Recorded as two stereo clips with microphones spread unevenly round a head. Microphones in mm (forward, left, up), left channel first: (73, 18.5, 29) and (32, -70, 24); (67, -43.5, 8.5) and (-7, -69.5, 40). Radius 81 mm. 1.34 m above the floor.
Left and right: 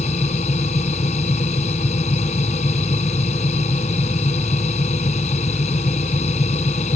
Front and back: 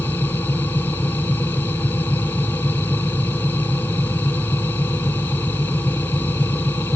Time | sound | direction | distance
0.0 | a machine running | 105° left | ?